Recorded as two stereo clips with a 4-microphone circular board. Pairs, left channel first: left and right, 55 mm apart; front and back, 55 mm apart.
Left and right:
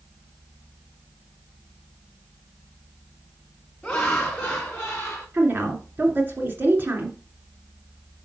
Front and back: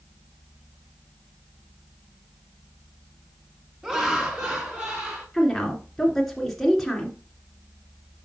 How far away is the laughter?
About 1.2 m.